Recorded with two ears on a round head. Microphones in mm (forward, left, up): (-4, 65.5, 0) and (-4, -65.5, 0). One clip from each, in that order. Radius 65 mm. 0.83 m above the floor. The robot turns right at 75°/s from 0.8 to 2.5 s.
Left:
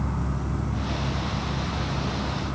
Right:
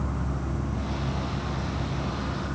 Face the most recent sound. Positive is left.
turn(degrees=-55)